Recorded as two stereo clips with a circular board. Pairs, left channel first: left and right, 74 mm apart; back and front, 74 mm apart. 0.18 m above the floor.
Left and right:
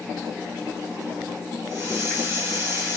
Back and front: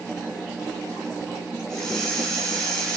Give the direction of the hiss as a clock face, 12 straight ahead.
4 o'clock.